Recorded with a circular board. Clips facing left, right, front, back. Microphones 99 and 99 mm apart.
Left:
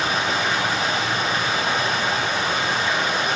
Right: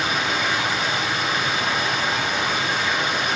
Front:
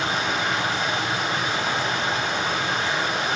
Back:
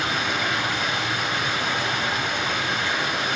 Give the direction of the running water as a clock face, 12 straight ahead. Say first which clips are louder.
Left 1 dB, front 1 dB; 10 o'clock.